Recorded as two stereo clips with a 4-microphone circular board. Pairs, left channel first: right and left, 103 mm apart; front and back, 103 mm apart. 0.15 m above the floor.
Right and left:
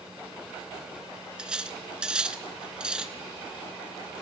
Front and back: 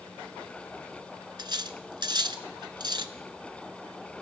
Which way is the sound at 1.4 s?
170° left.